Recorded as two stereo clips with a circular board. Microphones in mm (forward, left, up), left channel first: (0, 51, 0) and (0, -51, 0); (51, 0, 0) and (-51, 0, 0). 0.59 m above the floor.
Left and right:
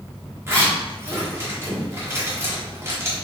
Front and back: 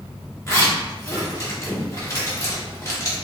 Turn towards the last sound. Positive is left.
turn(degrees=-45)